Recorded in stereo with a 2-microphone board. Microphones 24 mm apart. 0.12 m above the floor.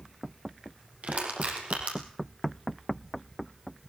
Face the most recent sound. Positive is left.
turn(degrees=-70)  # may be behind; listen again after turning